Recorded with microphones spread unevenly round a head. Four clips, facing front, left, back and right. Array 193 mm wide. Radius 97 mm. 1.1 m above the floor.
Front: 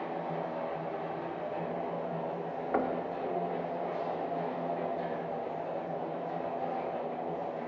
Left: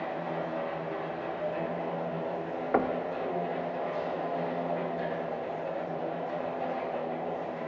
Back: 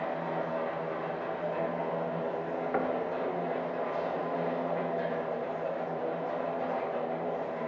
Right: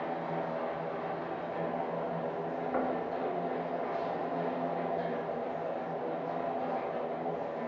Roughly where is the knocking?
Left.